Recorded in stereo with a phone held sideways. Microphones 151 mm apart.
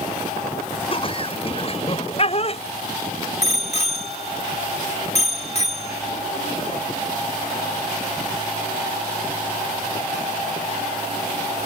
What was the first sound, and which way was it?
Laughter, 40° left (ahead or behind).